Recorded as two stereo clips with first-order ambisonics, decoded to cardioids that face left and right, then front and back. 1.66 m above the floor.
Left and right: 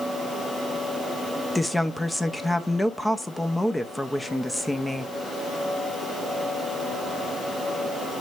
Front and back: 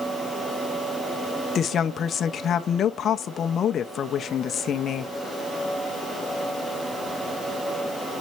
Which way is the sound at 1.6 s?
10° left.